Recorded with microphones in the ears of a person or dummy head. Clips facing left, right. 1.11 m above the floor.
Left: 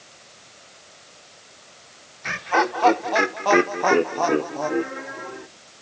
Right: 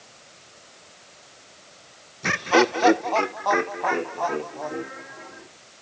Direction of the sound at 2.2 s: 60° right (ahead or behind).